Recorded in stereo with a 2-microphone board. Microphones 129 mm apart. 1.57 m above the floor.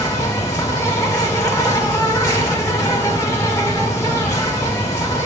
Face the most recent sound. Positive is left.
turn(degrees=25)  # may be behind; listen again after turning